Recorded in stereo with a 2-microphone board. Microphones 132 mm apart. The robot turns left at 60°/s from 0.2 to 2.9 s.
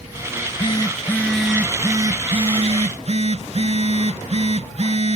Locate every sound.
0.3 s a phone buzzing: 65° left, 0.8 m; by 5.2 s 90° right, 0.8 m